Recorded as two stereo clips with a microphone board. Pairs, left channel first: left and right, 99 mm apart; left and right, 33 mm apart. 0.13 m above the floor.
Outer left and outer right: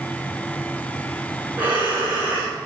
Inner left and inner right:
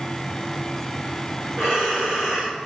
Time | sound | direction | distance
1.6 | breathing | 15° right (ahead or behind) | 2.5 m